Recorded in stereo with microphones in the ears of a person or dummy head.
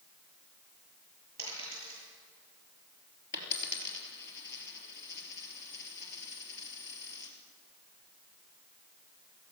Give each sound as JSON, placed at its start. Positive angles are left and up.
{"t": 1.4, "sound": "a dropped coin", "side_deg": 35, "distance_m": 7.0}
{"t": 3.3, "sound": "a dropped coin", "side_deg": 65, "distance_m": 3.5}